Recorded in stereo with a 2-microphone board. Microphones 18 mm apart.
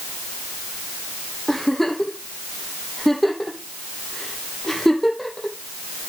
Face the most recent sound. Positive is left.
turn(degrees=15)  # may be behind; listen again after turning